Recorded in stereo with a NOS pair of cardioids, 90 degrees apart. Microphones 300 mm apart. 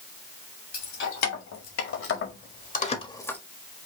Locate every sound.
0.7 s keys jangling: 65° left, 2.5 m; by 3.4 s 5° left, 1.3 m